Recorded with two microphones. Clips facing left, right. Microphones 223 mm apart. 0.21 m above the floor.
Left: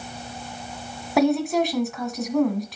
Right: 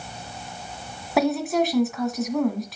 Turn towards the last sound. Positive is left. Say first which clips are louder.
# left 2 dB
turn(degrees=0)  # may be behind; listen again after turning